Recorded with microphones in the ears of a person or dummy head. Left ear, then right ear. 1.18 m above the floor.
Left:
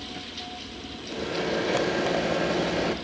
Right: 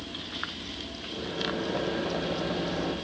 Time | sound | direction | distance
1.1 | a microwave | 70° left (ahead or behind) | 0.8 m